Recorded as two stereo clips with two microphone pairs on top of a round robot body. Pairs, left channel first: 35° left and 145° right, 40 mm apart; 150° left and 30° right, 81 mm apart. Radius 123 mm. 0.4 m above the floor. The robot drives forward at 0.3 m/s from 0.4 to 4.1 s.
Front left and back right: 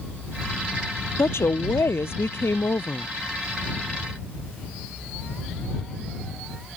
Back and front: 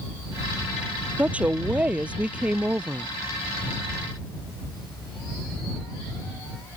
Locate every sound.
1.2 s a woman speaking: 45° left